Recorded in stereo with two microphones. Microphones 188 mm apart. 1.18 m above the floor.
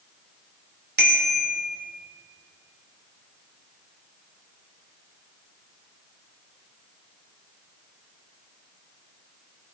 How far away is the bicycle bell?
About 2.5 m.